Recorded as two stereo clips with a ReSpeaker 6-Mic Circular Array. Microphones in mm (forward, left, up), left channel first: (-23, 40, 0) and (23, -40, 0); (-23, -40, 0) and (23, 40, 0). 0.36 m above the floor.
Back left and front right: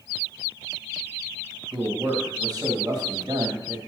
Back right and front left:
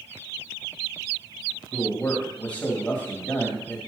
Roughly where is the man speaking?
Ahead right.